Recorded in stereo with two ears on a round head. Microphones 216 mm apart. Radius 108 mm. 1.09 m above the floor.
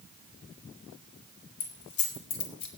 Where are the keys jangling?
80° left, 2.5 m; by 2.7 s 70° left (ahead or behind), 1.7 m.